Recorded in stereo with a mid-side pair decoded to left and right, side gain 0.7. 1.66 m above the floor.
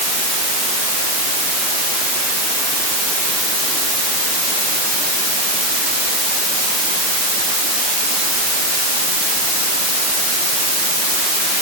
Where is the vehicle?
No vehicle in this recording.